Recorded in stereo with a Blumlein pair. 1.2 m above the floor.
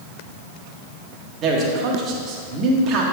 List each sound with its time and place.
1.4 s a man speaking: 30° right, 1.5 m